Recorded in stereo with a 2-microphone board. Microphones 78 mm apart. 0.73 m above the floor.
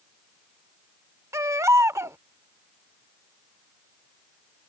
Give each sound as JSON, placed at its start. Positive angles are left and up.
{"t": 1.3, "sound": "a baby crying", "side_deg": -40}